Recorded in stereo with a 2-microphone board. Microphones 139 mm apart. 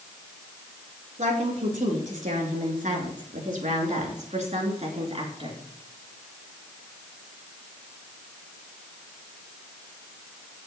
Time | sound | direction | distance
1.2 | a woman speaking | 60° right (ahead or behind) | 4 m